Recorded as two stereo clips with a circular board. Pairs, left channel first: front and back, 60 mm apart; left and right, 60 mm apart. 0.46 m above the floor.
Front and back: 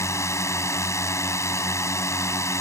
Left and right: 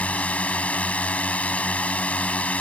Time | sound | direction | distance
0.0 | a drone | 25° left | ?